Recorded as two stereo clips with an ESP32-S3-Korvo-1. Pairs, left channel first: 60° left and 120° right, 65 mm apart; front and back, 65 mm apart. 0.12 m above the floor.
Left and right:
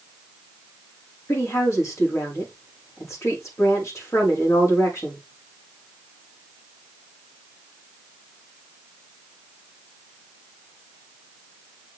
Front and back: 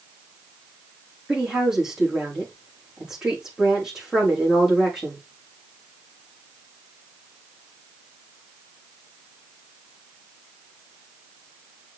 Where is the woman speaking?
100° left, 6 m.